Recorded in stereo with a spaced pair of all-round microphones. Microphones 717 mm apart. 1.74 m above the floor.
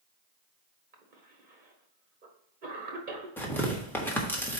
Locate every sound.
0.9 s a cough: 80° right, 1.4 m
3.4 s tearing paper: 5° left (ahead or behind), 1.3 m